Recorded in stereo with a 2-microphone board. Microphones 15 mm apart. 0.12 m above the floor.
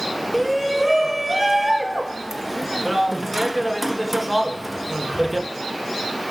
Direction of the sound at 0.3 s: 10° right (ahead or behind).